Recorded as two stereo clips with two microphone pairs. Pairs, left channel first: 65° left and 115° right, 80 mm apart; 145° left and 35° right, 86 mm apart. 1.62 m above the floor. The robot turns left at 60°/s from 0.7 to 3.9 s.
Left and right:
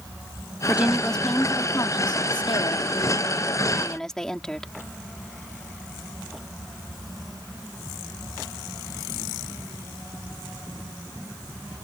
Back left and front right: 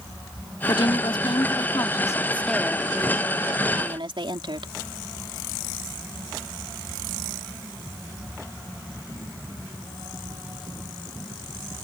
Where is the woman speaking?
175° left; by 4.7 s 20° right.